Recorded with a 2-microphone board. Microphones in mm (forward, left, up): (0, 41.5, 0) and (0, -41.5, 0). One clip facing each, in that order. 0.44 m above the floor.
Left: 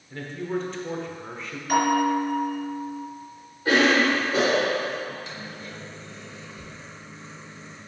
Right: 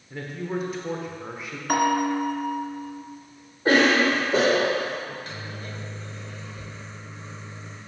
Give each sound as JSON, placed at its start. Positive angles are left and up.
{"t": 0.1, "sound": "a man speaking", "side_deg": -10, "distance_m": 1.0}
{"t": 1.7, "sound": "a bell", "side_deg": -55, "distance_m": 2.5}
{"t": 3.6, "sound": "a cough", "side_deg": -45, "distance_m": 1.2}
{"t": 5.1, "sound": "a microwave", "side_deg": -45, "distance_m": 1.4}